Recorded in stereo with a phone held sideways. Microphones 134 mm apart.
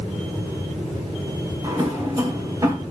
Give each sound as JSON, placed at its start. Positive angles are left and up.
{"t": 1.6, "sound": "a drawer", "side_deg": -30, "distance_m": 4.0}